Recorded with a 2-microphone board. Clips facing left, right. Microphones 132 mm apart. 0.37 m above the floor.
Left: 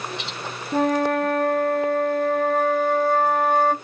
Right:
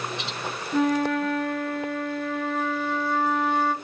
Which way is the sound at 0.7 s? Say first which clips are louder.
Left 2 dB; 45° left (ahead or behind).